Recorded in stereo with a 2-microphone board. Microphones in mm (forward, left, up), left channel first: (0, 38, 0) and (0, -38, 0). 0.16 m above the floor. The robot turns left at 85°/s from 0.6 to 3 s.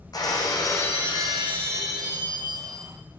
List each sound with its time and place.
0.1 s breaking glass: 60° left, 4 m; by 3.0 s 145° right, 4 m